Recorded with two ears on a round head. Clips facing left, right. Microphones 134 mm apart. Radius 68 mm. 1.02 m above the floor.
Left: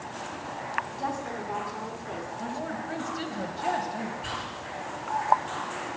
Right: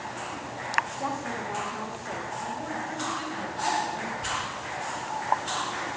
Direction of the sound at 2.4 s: 40° left (ahead or behind).